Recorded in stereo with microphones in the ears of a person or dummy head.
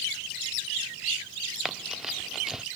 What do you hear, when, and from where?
1.6 s running footsteps: centre (ahead or behind)